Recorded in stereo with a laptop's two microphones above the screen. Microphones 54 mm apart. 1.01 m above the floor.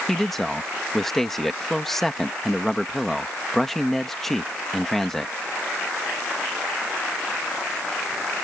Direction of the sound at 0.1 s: 5° left (ahead or behind).